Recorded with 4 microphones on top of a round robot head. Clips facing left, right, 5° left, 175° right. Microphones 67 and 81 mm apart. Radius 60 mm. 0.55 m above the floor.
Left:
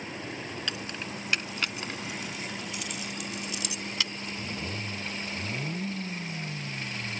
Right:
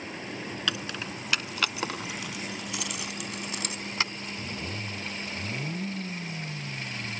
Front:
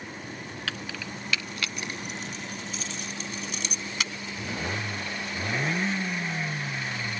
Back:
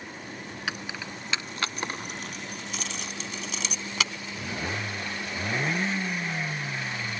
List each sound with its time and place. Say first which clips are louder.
0.7 s keys jangling: right 3 dB, back 2 dB; 100° right; by 4.1 s 165° right